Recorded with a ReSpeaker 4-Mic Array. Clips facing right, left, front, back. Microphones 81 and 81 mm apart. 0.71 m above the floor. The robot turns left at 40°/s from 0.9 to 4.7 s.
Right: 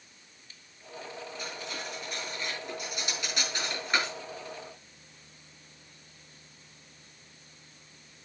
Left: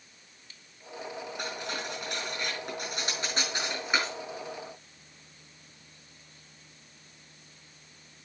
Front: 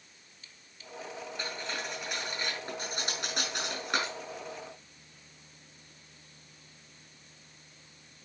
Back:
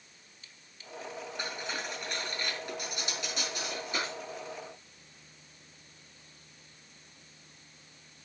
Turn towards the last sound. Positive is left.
turn(degrees=-25)